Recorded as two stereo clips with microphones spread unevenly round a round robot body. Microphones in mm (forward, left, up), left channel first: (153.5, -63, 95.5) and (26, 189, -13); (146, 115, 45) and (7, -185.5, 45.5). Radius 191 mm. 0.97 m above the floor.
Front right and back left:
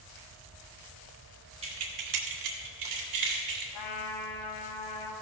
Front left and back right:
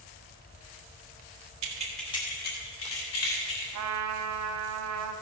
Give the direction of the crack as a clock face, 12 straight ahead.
No crack in this recording.